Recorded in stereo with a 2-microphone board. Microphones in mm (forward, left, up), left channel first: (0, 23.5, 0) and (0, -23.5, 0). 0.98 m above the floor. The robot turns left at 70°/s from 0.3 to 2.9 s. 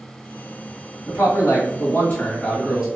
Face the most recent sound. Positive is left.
turn(degrees=-20)